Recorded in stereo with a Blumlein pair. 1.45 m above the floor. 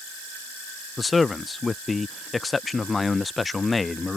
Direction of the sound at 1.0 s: 10° left.